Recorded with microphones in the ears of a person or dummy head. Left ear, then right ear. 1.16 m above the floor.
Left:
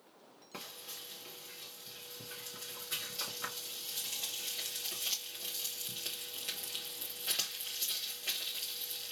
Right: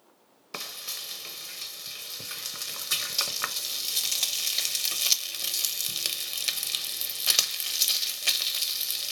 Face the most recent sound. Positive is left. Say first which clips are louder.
# right 11 dB
turn(degrees=-55)  # may be behind; listen again after turning